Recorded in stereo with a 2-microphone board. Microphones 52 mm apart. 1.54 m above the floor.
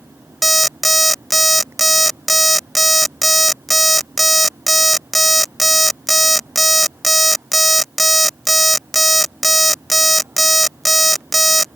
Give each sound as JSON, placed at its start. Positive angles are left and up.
{"t": 0.4, "sound": "an alarm clock", "side_deg": 0}